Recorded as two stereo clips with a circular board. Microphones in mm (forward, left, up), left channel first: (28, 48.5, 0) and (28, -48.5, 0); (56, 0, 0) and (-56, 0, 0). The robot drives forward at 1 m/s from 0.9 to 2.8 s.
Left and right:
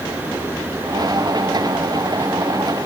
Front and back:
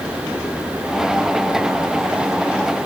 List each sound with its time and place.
Only background noise.